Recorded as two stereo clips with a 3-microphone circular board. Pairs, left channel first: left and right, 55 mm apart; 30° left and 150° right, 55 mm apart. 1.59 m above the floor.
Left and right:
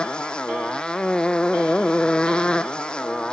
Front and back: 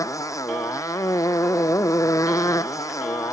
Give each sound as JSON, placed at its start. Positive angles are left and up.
{"t": 0.0, "sound": "a motorcycle", "azimuth_deg": 15}